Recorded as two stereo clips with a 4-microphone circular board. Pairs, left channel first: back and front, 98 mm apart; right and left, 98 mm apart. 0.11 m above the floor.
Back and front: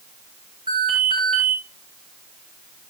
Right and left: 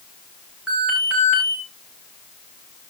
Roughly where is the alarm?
Ahead.